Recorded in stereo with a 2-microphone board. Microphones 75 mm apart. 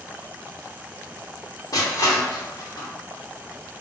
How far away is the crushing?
About 1.0 m.